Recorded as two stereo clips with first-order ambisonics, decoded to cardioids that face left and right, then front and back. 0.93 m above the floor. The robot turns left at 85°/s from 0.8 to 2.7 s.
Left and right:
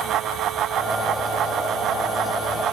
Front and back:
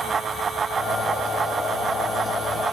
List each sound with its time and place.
Only background noise.